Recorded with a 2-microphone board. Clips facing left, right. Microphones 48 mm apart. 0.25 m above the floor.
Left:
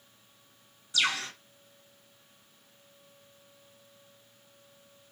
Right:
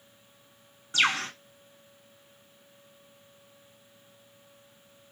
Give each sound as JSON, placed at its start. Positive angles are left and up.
{"t": 0.9, "sound": "a bird", "side_deg": -45, "distance_m": 0.6}